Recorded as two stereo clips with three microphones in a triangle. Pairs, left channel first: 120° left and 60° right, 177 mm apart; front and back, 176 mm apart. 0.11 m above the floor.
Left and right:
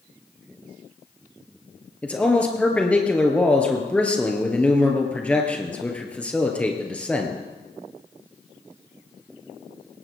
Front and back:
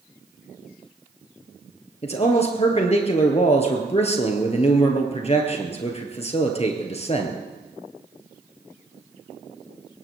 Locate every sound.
2.0 s a man speaking: 40° left, 2.5 m